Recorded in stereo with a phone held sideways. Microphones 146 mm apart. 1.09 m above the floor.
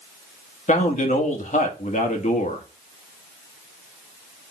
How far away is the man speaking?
About 1.6 m.